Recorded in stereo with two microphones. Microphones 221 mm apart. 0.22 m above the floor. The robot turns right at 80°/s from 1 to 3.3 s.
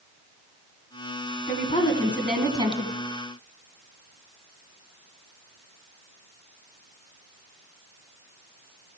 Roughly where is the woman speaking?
Behind left.